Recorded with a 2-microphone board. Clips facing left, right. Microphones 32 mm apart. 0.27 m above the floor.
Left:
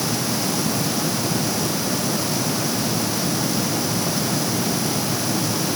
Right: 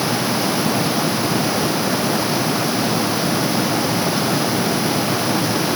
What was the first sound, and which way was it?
Only background noise.